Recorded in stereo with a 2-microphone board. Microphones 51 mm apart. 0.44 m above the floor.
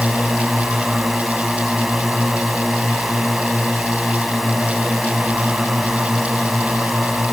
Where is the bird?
No bird in this recording.